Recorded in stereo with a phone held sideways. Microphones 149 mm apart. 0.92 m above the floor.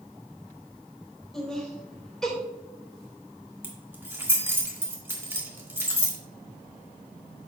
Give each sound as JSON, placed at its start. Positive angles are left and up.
{"t": 1.3, "sound": "laughter", "side_deg": 5, "distance_m": 3.5}
{"t": 3.6, "sound": "keys jangling", "side_deg": -15, "distance_m": 1.7}